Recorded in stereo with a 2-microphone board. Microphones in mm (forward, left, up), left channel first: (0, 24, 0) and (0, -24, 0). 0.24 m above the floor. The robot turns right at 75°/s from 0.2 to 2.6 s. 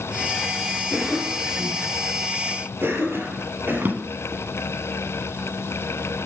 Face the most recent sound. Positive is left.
turn(degrees=-45)  # may be behind; listen again after turning